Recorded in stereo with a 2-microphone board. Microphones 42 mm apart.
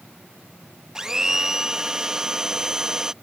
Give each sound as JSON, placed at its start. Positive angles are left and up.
{"t": 0.9, "sound": "a blender", "side_deg": -15}